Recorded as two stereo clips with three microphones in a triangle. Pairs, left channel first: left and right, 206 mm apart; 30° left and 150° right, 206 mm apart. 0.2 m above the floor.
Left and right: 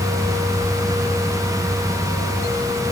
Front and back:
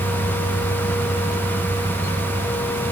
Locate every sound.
Only background noise.